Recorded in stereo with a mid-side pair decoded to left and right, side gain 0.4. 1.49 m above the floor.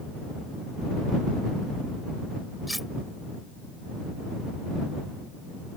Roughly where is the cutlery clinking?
Ahead.